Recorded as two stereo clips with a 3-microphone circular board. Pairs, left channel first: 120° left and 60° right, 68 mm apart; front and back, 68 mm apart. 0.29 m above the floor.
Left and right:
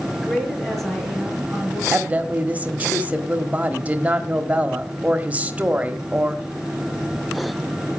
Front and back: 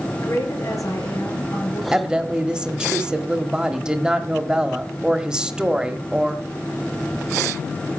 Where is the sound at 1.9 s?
110° right, 1.1 m.